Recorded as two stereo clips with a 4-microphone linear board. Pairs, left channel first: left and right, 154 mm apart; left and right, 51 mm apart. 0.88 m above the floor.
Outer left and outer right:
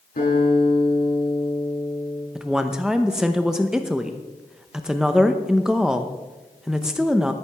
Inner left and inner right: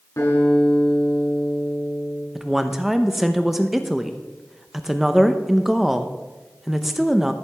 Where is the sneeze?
I don't hear a sneeze.